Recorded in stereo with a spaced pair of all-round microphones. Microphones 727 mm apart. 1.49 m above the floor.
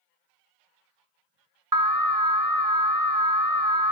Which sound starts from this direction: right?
An alarm, at 1.7 s.